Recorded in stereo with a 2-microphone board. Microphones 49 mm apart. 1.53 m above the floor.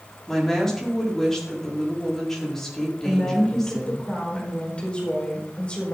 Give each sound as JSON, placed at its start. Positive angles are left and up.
{"t": 0.3, "sound": "a woman speaking", "side_deg": 10, "distance_m": 4.5}
{"t": 3.0, "sound": "a woman speaking", "side_deg": 25, "distance_m": 4.5}